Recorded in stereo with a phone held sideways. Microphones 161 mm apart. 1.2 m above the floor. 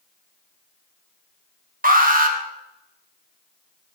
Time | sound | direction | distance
1.8 | an alarm | 60° right (ahead or behind) | 1.7 m